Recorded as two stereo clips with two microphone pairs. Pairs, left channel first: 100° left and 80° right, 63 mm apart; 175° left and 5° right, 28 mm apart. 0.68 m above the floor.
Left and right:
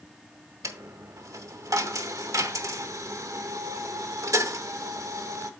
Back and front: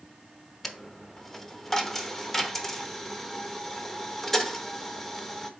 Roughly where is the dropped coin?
Right.